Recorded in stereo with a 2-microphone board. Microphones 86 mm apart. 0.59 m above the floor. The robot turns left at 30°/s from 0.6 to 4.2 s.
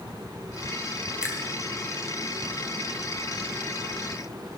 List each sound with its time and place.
1.2 s a finger snap: 10° right (ahead or behind), 1.4 m; by 1.4 s 15° right (ahead or behind), 1.4 m